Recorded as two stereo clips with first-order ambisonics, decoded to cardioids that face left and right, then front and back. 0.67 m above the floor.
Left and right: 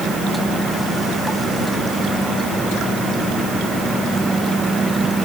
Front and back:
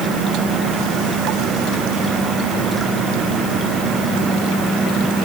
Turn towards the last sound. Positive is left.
No sound to turn to.